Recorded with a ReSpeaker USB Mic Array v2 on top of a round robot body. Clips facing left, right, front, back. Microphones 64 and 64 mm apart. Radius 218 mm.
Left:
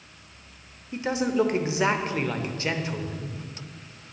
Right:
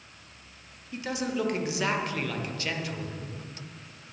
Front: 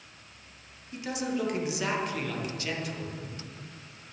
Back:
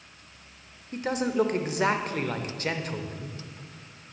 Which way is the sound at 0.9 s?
150° left.